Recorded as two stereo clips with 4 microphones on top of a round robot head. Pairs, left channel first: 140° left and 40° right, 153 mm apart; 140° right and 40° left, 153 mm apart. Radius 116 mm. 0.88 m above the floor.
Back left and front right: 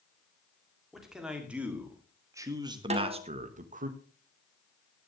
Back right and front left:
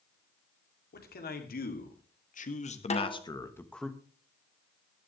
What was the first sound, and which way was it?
A man speaking, 130° right.